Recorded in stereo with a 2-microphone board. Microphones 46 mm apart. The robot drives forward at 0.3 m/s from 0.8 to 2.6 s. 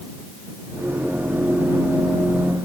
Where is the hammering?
I don't hear hammering.